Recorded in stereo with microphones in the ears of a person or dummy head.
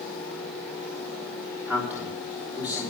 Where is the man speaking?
5° right (ahead or behind), 3.5 m.